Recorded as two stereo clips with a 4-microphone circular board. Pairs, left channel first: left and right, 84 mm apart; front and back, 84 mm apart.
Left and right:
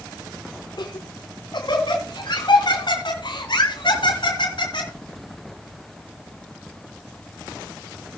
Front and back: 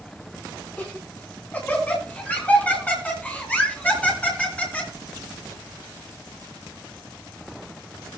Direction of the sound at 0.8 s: 70° left.